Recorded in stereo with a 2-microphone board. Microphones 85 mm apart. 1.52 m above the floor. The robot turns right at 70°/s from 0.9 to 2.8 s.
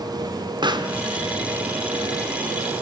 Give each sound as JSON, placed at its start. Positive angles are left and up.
{"t": 0.6, "sound": "a pop", "side_deg": -60, "distance_m": 1.5}